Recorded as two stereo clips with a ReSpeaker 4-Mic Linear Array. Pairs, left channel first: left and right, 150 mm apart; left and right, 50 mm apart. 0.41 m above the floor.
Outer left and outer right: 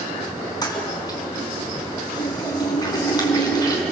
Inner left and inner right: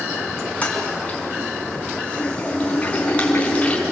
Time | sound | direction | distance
0.6 | a toilet flushing | 25° left (ahead or behind) | 4.5 m